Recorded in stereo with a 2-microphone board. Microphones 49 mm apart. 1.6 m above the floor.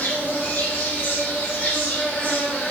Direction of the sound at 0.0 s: 40° left (ahead or behind).